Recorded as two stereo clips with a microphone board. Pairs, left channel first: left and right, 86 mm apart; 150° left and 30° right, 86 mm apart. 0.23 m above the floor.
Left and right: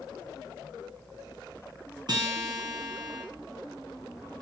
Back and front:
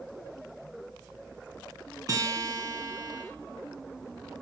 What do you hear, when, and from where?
2.1 s a guitar: 70° right, 3 m